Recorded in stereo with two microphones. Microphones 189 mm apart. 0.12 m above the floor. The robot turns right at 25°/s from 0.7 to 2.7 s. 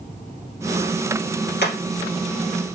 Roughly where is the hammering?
Left.